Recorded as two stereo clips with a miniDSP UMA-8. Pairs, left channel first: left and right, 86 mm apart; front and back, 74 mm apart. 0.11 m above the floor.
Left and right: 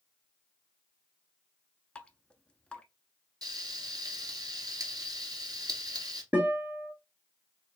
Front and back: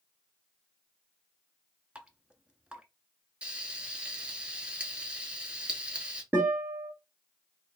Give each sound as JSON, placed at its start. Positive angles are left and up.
{"t": 1.9, "sound": "dripping", "azimuth_deg": 145, "distance_m": 0.5}
{"t": 3.4, "sound": "frying", "azimuth_deg": -105, "distance_m": 1.0}
{"t": 6.3, "sound": "a guitar", "azimuth_deg": -140, "distance_m": 1.9}